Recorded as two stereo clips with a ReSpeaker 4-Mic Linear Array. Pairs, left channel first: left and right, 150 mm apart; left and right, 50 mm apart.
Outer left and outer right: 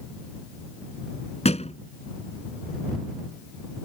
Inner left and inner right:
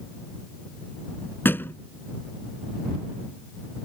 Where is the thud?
45° left (ahead or behind).